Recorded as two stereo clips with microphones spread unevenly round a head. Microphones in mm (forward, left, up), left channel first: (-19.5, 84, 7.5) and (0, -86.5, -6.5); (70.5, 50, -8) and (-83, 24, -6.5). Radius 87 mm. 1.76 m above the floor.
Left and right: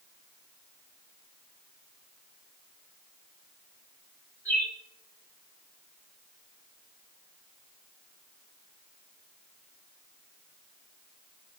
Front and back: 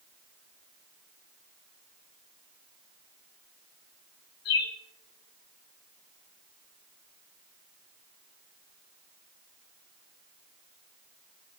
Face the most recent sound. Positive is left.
turn(degrees=15)